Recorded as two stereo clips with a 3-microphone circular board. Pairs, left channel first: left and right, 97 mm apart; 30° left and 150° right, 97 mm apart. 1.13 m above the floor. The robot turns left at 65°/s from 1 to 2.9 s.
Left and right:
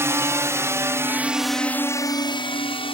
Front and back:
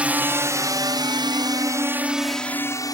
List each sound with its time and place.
0.0 s a drone: 90° right; by 2.9 s 75° left